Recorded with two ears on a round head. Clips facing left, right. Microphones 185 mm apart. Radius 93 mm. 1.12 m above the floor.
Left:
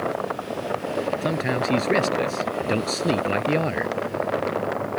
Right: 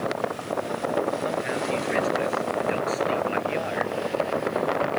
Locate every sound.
1.2 s a man speaking: 55° left (ahead or behind)